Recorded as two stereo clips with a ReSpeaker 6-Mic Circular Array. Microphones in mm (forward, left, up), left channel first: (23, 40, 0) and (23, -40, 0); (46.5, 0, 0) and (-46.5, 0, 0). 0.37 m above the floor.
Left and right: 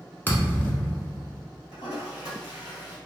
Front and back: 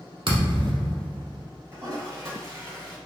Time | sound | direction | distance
0.3 | a thud | 155° left | 0.8 m
1.7 | a toilet flushing | 120° left | 1.7 m